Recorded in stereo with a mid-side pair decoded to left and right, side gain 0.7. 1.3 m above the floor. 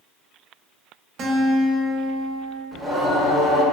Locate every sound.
1.2 s a guitar: 50° right, 0.5 m
2.7 s singing: 15° right, 0.6 m